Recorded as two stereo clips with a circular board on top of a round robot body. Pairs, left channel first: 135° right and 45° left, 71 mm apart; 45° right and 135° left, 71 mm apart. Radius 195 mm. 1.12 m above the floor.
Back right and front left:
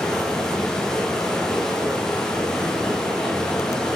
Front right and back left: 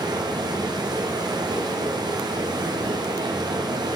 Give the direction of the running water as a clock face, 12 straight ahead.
7 o'clock.